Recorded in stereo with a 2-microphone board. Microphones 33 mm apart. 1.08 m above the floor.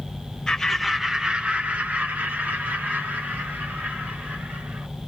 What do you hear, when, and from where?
0.5 s laughter: 20° left (ahead or behind), 0.8 m; by 4.9 s 80° right, 3 m